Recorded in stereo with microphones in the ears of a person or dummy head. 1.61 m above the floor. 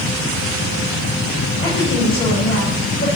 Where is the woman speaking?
30° left (ahead or behind), 7.5 m.